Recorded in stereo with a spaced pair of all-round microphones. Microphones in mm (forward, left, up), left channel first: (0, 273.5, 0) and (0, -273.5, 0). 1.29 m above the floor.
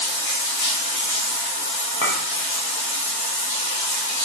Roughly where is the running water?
Left.